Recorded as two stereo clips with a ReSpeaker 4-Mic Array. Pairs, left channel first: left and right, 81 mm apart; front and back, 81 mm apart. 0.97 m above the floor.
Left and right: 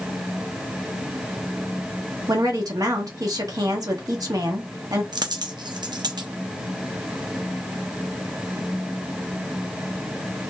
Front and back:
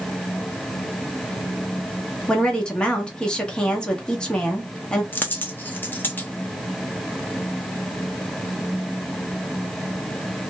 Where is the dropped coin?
65° right, 0.6 m.